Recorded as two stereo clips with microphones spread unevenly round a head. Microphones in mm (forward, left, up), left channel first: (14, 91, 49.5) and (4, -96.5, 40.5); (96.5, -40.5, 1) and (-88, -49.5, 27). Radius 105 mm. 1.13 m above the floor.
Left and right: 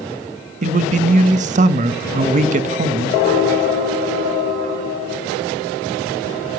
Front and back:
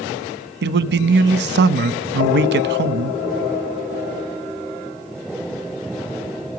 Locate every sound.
0.6 s a man speaking: 145° right, 1.1 m